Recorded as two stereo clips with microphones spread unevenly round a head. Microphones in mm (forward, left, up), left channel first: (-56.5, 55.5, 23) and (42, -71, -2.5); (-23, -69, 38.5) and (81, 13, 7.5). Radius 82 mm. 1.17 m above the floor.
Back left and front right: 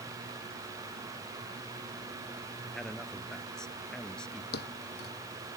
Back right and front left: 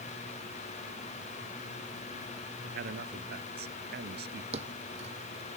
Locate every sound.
2.7 s a man speaking: 40° left; by 4.4 s 45° left
4.5 s a thud: 95° left